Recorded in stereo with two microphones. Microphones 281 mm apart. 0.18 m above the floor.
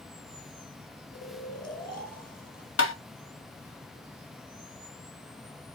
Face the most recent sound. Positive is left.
turn(degrees=50)  # may be behind; listen again after turning